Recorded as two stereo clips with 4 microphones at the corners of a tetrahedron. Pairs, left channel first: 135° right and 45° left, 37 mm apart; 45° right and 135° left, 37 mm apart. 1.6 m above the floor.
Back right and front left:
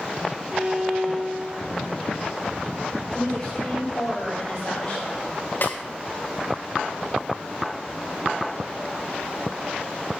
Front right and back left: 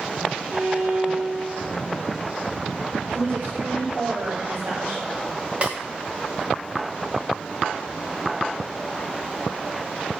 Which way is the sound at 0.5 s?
105° left.